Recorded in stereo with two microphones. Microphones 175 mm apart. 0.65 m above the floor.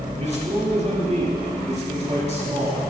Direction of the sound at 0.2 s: 40° right (ahead or behind).